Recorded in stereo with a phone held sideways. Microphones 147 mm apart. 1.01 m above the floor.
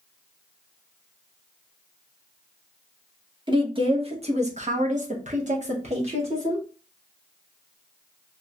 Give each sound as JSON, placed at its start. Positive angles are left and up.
{"t": 3.5, "sound": "a woman speaking", "side_deg": -30, "distance_m": 1.1}